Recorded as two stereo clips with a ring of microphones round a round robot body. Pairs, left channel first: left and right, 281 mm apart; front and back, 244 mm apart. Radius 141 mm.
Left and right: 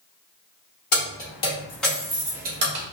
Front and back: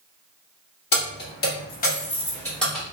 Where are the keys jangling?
35° left, 1.2 m; by 2.8 s 95° right, 0.9 m.